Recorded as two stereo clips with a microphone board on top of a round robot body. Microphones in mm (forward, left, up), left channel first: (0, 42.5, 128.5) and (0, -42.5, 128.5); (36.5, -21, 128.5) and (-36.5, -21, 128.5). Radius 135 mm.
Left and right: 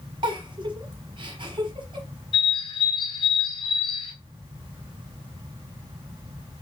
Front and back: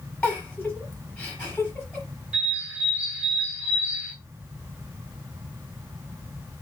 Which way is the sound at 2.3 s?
110° left.